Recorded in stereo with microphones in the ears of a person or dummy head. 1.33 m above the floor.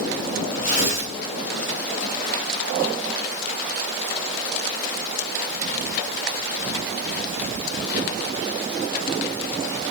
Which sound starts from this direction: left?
Tearing paper, at 0.6 s.